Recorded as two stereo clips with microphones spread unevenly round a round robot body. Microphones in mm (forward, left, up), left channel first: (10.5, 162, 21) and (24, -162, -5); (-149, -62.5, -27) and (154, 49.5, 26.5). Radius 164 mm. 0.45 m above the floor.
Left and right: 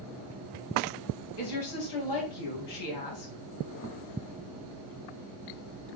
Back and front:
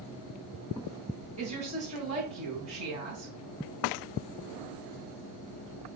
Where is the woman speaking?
95° left, 3 m.